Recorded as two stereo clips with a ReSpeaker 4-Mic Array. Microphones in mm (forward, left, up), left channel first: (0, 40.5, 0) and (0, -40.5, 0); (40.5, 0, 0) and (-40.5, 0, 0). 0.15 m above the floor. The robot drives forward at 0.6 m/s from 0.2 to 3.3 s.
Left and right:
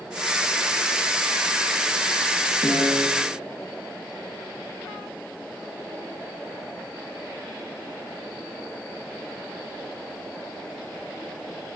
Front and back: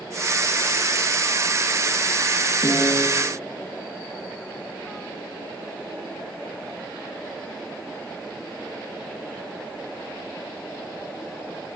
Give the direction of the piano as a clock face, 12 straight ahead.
10 o'clock.